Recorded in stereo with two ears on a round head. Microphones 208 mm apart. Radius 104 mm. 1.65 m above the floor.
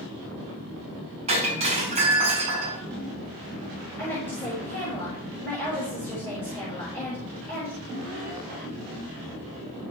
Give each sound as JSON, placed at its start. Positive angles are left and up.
{"t": 1.3, "sound": "breaking glass", "side_deg": -25, "distance_m": 6.0}
{"t": 4.0, "sound": "a woman speaking", "side_deg": 10, "distance_m": 7.0}